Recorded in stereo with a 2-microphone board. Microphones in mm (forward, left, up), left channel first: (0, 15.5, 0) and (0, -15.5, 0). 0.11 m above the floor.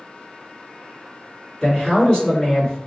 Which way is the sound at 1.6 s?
20° left (ahead or behind).